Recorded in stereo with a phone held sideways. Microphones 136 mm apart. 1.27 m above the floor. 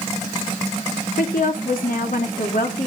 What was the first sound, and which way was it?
A woman speaking, 90° left.